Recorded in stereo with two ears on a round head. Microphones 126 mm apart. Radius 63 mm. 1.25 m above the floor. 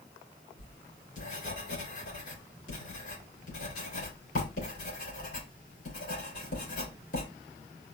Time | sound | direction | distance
0.6 | writing | 65° left (ahead or behind) | 3 m